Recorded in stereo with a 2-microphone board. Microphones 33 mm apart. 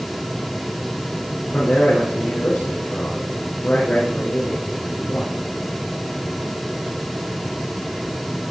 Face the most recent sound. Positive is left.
turn(degrees=70)  # may be behind; listen again after turning